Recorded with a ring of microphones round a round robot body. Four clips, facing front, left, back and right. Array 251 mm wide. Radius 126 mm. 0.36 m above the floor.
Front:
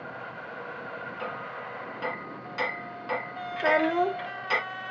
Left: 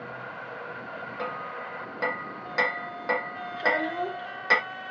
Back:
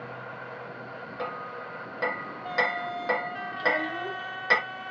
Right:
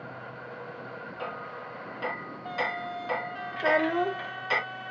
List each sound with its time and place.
1.2 s hammering: 130° left, 3 m
3.6 s a child speaking: 25° right, 0.8 m